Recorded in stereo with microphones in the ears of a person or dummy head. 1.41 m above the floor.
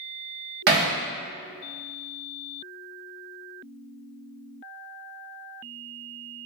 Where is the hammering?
50° right (ahead or behind), 0.6 m.